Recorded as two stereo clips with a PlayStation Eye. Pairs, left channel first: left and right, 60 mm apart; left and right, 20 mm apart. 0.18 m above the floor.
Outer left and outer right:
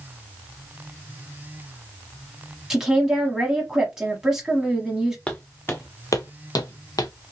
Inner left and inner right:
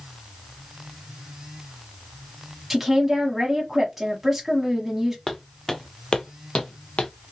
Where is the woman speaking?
10° right (ahead or behind), 1.1 m.